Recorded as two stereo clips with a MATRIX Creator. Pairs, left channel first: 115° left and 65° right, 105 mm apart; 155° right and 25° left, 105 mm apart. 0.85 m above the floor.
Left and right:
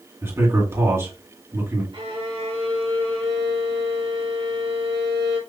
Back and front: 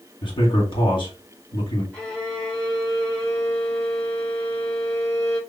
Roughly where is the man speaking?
Behind right.